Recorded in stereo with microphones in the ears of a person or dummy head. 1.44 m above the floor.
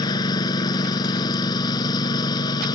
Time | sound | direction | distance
0.0 | a lawn mower | 25° left (ahead or behind) | ?